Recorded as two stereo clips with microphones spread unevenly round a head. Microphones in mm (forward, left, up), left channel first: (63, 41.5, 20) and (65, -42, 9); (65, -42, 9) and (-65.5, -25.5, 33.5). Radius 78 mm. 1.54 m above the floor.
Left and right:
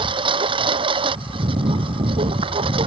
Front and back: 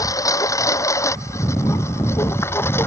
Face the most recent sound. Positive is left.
turn(degrees=-80)